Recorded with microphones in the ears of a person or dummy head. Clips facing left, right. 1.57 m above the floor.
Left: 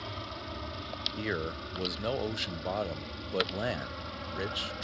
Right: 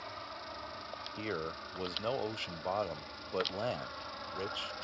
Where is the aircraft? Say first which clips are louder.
Left 5 dB; 45° left (ahead or behind); by 4.9 s 40° left (ahead or behind).